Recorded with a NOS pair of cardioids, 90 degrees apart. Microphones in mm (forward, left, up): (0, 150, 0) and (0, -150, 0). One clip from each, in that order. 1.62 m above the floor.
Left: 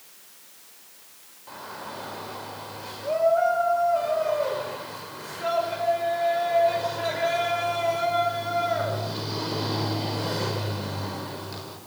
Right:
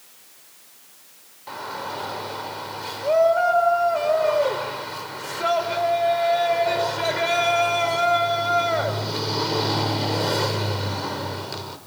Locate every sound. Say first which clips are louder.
1.5 s a shout: right 7 dB; 50° right, 5 m